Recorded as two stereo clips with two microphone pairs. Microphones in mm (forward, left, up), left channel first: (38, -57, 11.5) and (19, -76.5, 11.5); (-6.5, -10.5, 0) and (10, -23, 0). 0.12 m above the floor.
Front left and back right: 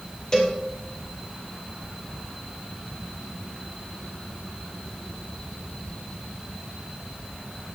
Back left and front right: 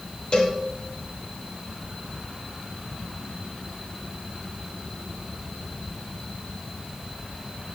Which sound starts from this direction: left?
A cowbell, at 0.3 s.